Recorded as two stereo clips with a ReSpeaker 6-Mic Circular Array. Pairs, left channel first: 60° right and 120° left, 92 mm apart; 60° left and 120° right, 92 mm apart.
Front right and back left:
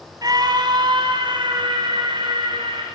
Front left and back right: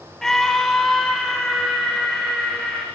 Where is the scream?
145° left, 1.9 m; by 2.9 s 150° left, 5 m.